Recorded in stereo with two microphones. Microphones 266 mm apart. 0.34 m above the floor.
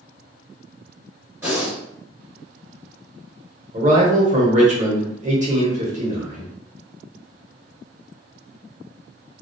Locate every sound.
1.4 s breathing: 10° right (ahead or behind), 1.5 m
3.7 s a man speaking: 25° right (ahead or behind), 0.9 m